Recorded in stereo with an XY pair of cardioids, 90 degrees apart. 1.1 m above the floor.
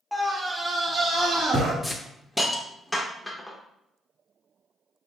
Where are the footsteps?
No footsteps in this recording.